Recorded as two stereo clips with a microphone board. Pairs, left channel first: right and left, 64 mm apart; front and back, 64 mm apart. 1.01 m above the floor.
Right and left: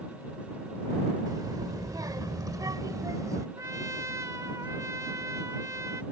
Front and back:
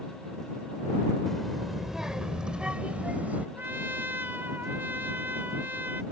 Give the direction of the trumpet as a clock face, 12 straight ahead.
8 o'clock.